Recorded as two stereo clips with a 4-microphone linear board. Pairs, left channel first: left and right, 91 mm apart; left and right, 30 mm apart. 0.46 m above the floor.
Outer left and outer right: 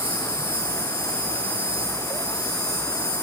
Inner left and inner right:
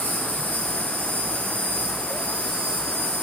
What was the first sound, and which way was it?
An insect, 70° right (ahead or behind).